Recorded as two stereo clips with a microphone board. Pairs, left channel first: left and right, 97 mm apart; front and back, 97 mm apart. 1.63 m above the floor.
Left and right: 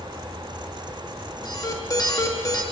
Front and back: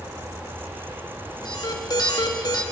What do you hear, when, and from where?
1.4 s an alarm: 45° left, 1.9 m